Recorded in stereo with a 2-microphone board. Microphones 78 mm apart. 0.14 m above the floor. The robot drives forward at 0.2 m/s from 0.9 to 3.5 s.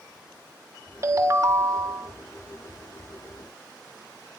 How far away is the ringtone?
About 0.9 m.